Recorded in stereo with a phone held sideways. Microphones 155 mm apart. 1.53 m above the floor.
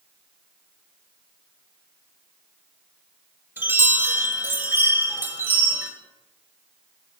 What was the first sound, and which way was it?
A chime, 15° right (ahead or behind).